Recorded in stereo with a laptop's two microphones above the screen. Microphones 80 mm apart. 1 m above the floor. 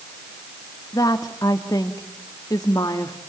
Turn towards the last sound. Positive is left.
turn(degrees=45)  # may be behind; listen again after turning